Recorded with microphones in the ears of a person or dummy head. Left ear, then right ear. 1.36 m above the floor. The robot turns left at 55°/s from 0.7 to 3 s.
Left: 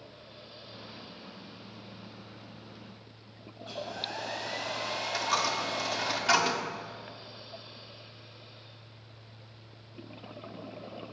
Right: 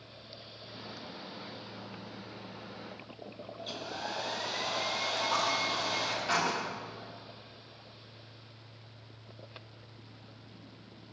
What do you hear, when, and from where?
3.6 s a hair dryer: 45° right (ahead or behind), 1.9 m
5.1 s a dropped coin: 35° left (ahead or behind), 1.6 m